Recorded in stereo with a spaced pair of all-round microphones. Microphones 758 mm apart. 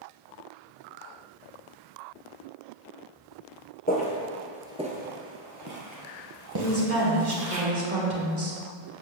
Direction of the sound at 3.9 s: 10° left (ahead or behind).